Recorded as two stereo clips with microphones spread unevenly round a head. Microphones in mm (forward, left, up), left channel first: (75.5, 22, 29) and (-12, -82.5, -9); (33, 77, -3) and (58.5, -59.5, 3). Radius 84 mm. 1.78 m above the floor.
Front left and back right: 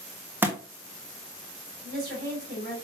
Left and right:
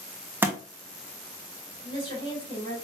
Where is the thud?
35° right, 1.1 m.